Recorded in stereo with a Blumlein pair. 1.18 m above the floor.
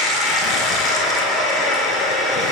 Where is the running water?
15° left, 1.9 m.